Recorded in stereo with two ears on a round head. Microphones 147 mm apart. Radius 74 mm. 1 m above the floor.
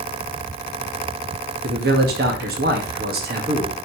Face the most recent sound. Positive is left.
turn(degrees=-60)  # may be behind; listen again after turning